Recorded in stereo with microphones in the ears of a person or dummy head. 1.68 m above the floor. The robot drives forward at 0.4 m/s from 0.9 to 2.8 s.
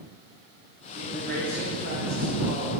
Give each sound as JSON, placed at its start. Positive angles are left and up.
{"t": 0.9, "sound": "a man speaking", "side_deg": -50, "distance_m": 1.2}